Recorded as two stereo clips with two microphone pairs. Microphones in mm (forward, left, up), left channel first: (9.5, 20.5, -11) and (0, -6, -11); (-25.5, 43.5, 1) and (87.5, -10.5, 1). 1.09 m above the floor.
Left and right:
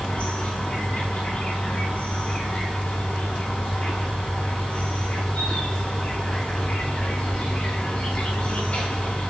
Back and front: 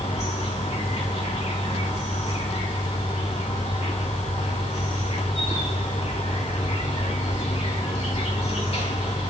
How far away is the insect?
About 3 m.